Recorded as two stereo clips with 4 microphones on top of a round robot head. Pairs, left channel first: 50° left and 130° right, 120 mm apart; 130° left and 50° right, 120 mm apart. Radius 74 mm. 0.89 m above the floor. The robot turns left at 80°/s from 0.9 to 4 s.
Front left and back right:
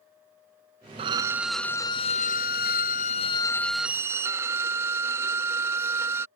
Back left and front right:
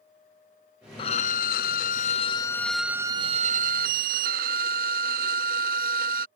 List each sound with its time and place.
1.0 s a violin: straight behind; by 6.3 s 60° right